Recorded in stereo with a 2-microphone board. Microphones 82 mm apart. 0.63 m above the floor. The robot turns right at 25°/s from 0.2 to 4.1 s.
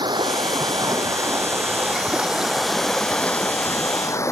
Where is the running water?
60° right; by 4.3 s 35° left.